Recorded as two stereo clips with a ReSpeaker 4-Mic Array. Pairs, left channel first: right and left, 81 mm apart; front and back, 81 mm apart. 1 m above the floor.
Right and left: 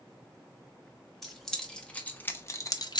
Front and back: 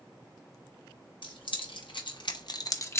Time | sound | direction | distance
1.2 | keys jangling | straight ahead | 1.1 m